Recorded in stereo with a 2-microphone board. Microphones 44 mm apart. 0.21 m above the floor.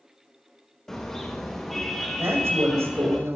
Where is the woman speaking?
75° right (ahead or behind), 7 m.